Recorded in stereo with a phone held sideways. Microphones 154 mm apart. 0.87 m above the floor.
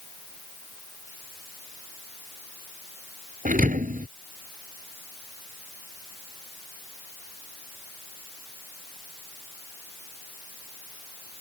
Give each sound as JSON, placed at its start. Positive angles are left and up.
{"t": 3.5, "sound": "a thud", "side_deg": -60}